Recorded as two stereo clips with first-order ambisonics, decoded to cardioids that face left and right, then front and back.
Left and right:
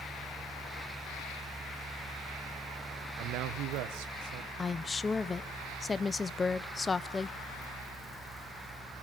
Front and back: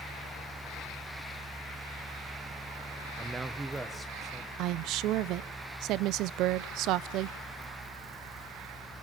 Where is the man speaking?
105° right, 0.5 m; by 4.5 s 90° right, 1.5 m.